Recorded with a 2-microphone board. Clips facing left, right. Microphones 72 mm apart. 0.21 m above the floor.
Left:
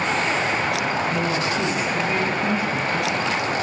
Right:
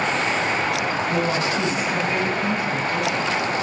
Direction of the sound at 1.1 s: 40° right (ahead or behind).